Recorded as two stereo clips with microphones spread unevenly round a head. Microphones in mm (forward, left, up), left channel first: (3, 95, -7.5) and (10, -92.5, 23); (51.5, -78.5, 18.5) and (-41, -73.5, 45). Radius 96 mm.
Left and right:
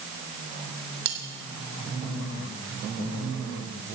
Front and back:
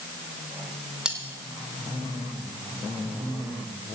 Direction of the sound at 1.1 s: 105° right.